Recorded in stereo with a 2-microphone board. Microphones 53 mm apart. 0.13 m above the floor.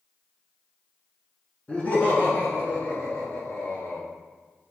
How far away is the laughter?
About 1.3 m.